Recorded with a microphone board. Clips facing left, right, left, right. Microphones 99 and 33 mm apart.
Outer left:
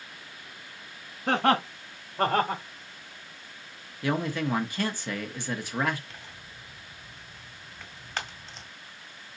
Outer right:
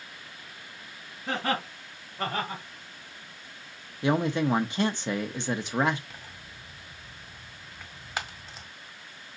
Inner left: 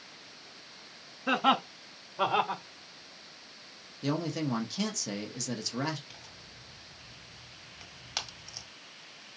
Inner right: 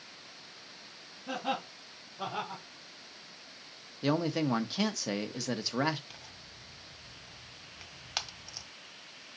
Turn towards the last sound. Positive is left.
turn(degrees=-10)  # may be behind; listen again after turning